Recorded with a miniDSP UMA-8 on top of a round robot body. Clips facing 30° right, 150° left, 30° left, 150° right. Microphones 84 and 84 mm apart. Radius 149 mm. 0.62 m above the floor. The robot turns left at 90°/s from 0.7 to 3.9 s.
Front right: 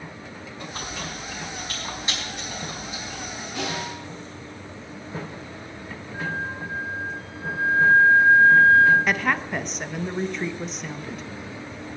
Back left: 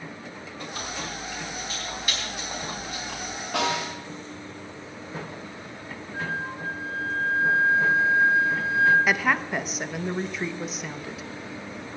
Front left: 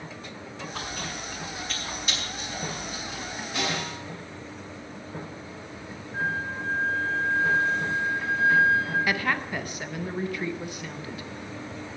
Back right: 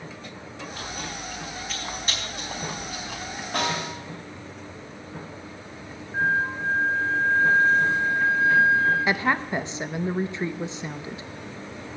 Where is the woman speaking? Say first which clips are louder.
Even, back right 3 dB; 125° right, 1.0 m.